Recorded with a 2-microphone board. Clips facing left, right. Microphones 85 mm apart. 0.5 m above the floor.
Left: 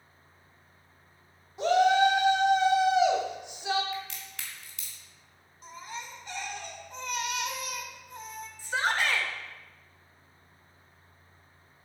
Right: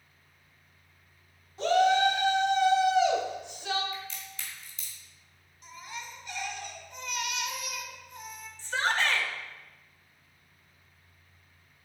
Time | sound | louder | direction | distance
1.6 | a shout | left 1 dB | 15° left (ahead or behind) | 1.4 m
3.9 | a crack | left 2 dB | 75° left (ahead or behind) | 2 m
5.6 | a baby crying | left 2 dB | 35° left (ahead or behind) | 1.2 m
8.6 | a shout | even | 10° left (ahead or behind) | 1.7 m